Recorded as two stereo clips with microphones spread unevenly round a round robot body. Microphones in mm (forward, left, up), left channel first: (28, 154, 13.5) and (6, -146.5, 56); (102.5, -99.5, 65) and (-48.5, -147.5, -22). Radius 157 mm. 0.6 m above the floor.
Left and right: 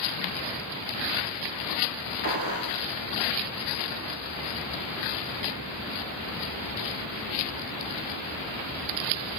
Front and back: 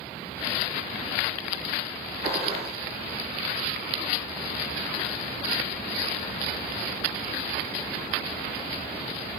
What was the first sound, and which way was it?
A gunshot, 140° left.